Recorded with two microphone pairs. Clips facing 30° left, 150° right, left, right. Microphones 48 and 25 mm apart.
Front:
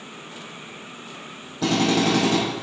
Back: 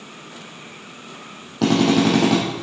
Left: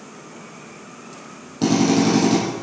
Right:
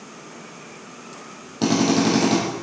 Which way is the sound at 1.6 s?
170° right.